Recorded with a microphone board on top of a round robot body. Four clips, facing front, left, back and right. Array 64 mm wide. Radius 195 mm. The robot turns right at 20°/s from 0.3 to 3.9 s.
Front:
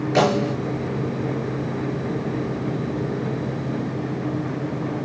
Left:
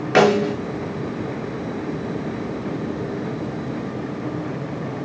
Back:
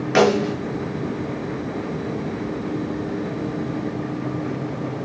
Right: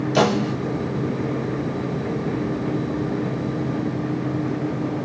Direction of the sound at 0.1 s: 110° left.